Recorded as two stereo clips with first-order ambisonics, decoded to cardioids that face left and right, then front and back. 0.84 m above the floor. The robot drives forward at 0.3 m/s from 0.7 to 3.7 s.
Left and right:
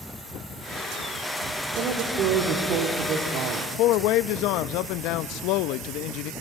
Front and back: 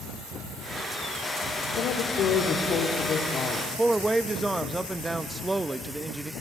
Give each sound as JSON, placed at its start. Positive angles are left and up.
{"t": 1.7, "sound": "a woman speaking", "azimuth_deg": -45, "distance_m": 2.0}
{"t": 3.8, "sound": "a man speaking", "azimuth_deg": 100, "distance_m": 0.5}